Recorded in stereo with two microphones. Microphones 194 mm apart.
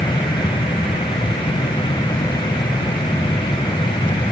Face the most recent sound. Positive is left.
No sound to turn to.